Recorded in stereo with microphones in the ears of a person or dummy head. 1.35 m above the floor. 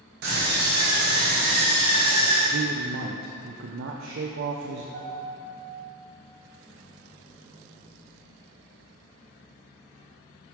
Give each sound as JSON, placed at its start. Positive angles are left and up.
{"t": 0.2, "sound": "a scream", "side_deg": -50, "distance_m": 1.0}
{"t": 2.5, "sound": "a man speaking", "side_deg": -70, "distance_m": 0.5}
{"t": 4.9, "sound": "a piano", "side_deg": -60, "distance_m": 2.5}